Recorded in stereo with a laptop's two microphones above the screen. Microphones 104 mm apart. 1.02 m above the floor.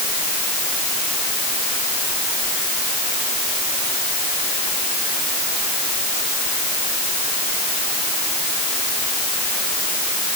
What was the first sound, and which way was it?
Only background noise.